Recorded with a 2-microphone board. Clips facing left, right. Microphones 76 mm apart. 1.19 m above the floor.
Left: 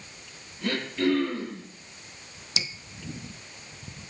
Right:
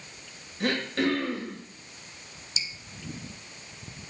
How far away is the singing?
No singing in this recording.